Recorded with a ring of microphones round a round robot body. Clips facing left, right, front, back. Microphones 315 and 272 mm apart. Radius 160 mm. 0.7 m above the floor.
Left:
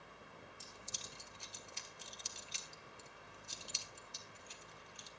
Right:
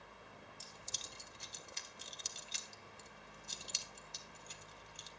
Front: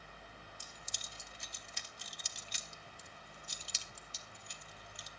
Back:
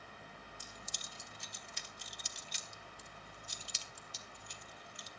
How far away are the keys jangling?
About 1.2 m.